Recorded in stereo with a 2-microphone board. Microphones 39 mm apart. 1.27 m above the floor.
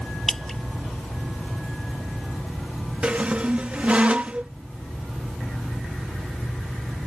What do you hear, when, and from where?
0.3 s dripping: 5° left (ahead or behind)
3.0 s a squeak: 30° right (ahead or behind)